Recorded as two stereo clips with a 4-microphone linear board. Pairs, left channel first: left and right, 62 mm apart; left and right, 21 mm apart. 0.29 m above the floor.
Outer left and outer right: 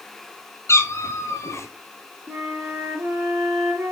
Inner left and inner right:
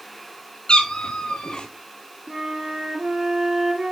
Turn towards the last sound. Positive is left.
turn(degrees=-55)  # may be behind; listen again after turning